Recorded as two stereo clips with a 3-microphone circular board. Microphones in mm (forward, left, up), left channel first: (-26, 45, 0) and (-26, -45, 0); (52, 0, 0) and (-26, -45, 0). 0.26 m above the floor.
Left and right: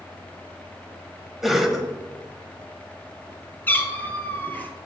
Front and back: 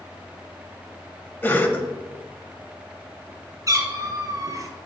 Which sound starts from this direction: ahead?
A cough, at 1.4 s.